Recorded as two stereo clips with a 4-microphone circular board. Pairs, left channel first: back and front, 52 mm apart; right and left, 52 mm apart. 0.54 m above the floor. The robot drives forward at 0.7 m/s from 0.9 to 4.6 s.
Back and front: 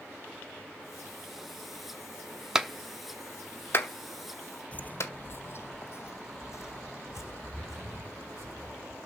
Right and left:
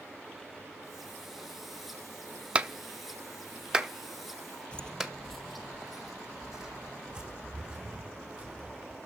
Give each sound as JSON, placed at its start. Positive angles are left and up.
{"t": 2.5, "sound": "a clap", "azimuth_deg": 60, "distance_m": 0.7}
{"t": 4.7, "sound": "footsteps", "azimuth_deg": -145, "distance_m": 0.6}